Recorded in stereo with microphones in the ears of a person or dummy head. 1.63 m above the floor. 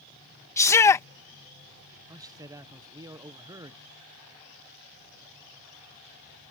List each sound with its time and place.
0.6 s a shout: 15° left (ahead or behind)
2.1 s a man speaking: 20° right (ahead or behind)